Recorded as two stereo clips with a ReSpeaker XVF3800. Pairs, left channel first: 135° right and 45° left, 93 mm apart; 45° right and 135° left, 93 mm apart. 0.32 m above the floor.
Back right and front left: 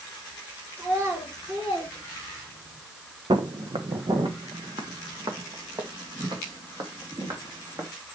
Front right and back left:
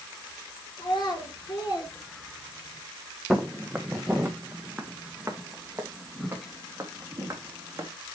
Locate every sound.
0.8 s a child speaking: 20° right, 3.5 m; by 2.8 s 10° left, 4 m
3.3 s footsteps: 50° left, 1.3 m; by 7.9 s 80° left, 3.5 m